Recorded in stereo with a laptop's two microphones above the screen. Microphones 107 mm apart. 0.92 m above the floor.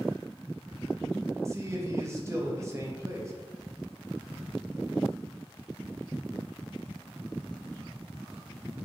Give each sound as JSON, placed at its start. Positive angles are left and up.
{"t": 1.4, "sound": "a man speaking", "side_deg": -30, "distance_m": 0.6}